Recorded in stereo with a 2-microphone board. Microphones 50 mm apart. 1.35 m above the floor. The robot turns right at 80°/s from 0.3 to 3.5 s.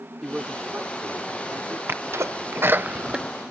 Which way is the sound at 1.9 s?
50° right (ahead or behind).